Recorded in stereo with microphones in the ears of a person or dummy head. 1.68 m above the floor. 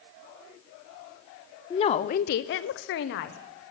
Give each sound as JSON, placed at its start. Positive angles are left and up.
{"t": 1.7, "sound": "a woman speaking", "side_deg": 25, "distance_m": 0.6}